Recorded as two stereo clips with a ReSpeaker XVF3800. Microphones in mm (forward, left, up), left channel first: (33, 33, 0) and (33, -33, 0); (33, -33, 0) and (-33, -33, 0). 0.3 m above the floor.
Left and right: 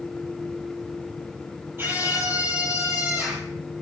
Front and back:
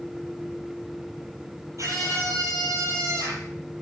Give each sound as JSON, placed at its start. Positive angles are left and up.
{"t": 1.8, "sound": "a scream", "azimuth_deg": -145, "distance_m": 8.0}